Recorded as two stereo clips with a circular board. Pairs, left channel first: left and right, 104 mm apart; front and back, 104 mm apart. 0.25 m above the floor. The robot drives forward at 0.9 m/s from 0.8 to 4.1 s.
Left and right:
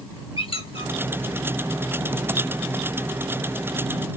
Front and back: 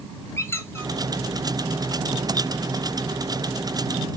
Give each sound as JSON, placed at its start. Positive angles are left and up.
{"t": 0.4, "sound": "a squeak", "azimuth_deg": 65, "distance_m": 1.9}